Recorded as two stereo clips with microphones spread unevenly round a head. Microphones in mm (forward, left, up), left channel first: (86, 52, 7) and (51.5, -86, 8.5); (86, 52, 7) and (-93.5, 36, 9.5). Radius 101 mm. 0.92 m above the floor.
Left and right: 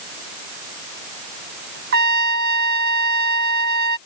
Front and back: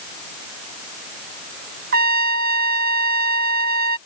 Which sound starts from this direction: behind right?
A trumpet, at 1.9 s.